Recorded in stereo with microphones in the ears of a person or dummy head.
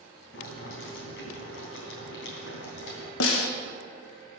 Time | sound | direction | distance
0.3 | boiling | 70° left (ahead or behind) | 3 m
3.2 | a snare drum | 70° left (ahead or behind) | 1.2 m